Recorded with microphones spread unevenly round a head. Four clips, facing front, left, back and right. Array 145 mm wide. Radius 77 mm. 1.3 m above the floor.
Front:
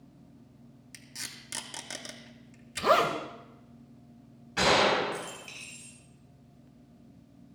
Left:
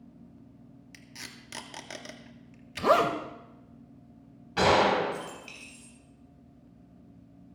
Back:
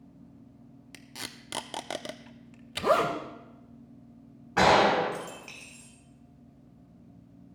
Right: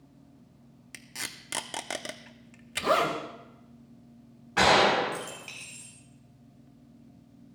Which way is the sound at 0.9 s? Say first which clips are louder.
Right 6 dB, back 5 dB; 150° right.